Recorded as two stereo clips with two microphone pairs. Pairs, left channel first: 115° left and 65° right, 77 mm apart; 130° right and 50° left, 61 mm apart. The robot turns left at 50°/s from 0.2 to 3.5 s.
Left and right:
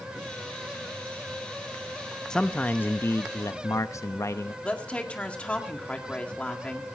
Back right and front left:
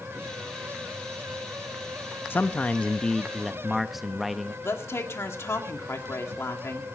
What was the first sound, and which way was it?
A man speaking, 165° right.